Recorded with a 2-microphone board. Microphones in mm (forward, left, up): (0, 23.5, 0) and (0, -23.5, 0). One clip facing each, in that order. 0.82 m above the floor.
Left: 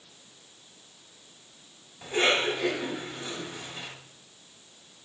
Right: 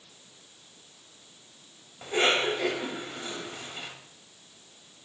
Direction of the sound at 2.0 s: 20° right (ahead or behind).